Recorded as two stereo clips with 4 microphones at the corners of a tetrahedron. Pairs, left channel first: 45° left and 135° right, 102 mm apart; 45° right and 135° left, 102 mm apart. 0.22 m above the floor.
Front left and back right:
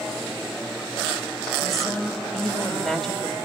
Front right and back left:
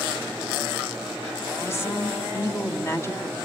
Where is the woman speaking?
45° right, 1.4 m.